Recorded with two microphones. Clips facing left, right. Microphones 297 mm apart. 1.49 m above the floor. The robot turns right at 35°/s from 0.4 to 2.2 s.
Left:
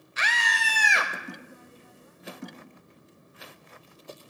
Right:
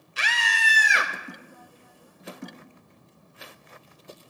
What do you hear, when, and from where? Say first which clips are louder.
0.2 s a scream: even; 40° right (ahead or behind), 0.8 m; by 1.1 s 15° right (ahead or behind), 0.8 m